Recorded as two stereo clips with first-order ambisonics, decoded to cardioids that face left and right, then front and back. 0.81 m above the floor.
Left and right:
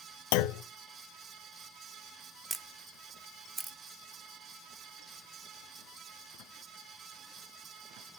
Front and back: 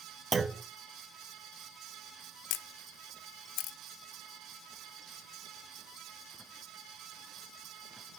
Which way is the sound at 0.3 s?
105° left.